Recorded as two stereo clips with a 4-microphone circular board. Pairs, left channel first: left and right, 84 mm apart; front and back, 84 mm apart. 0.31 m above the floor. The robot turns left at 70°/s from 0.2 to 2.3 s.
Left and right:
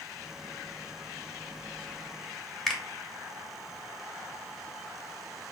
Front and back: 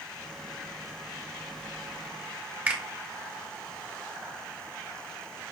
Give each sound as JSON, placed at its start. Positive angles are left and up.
{"t": 2.7, "sound": "a finger snap", "azimuth_deg": 165, "distance_m": 1.0}